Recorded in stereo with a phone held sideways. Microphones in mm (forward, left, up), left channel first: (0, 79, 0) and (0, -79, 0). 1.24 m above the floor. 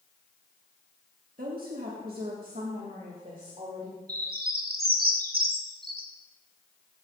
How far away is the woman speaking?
About 1.5 m.